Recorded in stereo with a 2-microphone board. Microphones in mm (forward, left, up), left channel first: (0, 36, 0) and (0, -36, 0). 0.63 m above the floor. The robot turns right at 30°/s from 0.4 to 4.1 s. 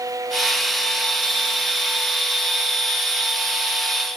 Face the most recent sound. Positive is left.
No sound to turn to.